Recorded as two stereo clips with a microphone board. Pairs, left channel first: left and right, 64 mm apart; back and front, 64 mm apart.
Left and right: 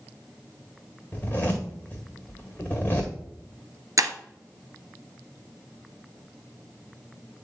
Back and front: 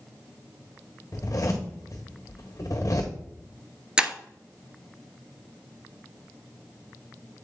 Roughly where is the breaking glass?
Right.